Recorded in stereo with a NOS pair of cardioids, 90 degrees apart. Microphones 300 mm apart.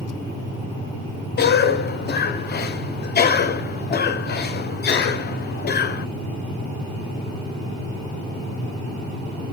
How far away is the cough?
About 0.7 m.